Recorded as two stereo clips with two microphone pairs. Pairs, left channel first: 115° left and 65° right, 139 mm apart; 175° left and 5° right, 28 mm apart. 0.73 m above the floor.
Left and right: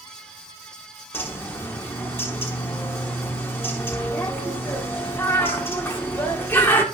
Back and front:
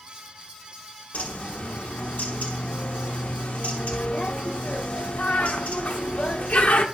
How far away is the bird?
About 1.1 m.